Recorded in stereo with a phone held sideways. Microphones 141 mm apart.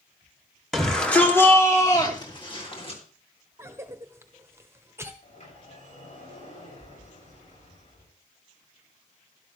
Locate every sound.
0.7 s a shout: centre (ahead or behind), 2.5 m; by 3.0 s 45° left (ahead or behind), 3.5 m
3.6 s a cough: 20° right (ahead or behind), 1.0 m
5.2 s a sliding door: 50° left (ahead or behind), 7 m